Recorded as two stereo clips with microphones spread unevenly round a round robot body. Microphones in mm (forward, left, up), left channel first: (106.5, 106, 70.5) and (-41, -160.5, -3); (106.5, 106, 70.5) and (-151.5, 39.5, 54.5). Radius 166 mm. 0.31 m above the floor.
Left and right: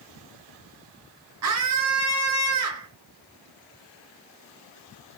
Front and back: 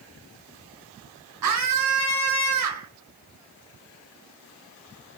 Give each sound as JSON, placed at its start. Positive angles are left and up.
{"t": 1.4, "sound": "a scream", "azimuth_deg": -150, "distance_m": 4.0}